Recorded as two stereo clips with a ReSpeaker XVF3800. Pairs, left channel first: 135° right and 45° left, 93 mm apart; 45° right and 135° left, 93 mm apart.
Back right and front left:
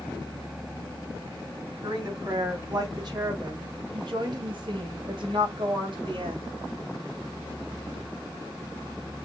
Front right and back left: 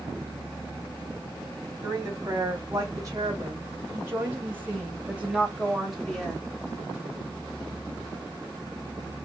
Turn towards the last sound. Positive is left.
turn(degrees=40)